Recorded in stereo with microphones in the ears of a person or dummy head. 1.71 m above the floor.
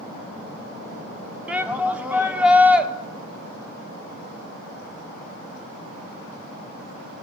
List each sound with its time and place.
1.5 s a shout: 5° right (ahead or behind), 1.1 m